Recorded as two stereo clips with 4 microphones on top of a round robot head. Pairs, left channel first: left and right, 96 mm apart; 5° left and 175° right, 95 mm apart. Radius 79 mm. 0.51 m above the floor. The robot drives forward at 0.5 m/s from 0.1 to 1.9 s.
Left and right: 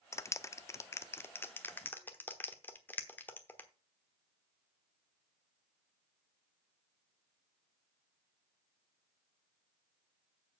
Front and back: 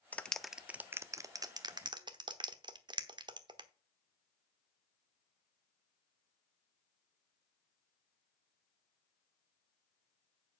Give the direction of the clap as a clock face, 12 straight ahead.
10 o'clock.